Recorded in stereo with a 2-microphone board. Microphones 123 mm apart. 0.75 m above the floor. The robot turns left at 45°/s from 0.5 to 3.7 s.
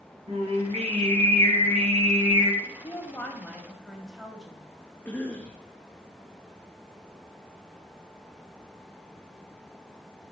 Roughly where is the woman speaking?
Ahead left.